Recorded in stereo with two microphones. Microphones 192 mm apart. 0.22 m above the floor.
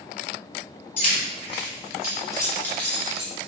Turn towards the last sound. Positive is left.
turn(degrees=-5)  # may be behind; listen again after turning